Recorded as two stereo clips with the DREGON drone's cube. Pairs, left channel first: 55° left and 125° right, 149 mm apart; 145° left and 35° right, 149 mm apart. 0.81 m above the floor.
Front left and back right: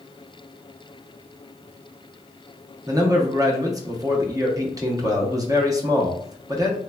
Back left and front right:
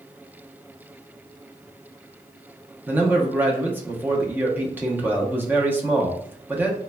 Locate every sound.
2.9 s a man speaking: 95° right, 0.5 m